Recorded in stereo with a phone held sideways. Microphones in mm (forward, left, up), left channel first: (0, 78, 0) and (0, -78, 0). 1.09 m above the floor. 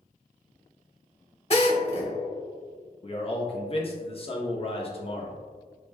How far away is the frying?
No frying in this recording.